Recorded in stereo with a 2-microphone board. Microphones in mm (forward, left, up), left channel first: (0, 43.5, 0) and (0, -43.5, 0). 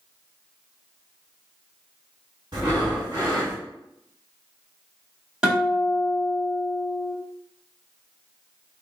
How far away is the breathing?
About 1.9 m.